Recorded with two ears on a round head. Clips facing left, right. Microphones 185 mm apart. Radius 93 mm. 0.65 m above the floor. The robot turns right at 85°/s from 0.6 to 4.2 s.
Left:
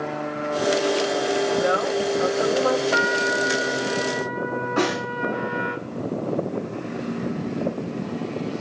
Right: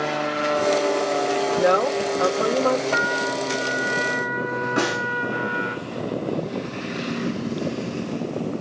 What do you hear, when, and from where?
1.5 s a woman speaking: 120° right, 2.5 m; by 2.8 s 10° right, 2.5 m
2.9 s a trumpet: 120° left, 1.7 m; by 5.8 s 130° right, 1.7 m
4.8 s a snare drum: 20° right (ahead or behind), 9 m